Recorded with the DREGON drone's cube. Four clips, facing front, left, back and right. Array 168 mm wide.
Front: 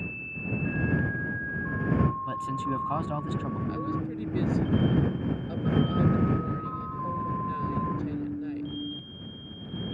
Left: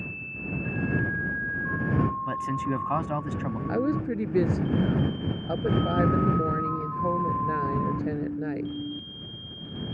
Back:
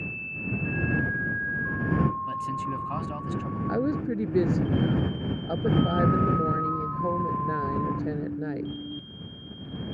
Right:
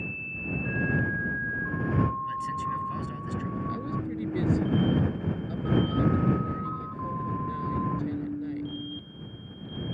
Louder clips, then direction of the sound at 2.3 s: Left 2 dB, even; 75° left.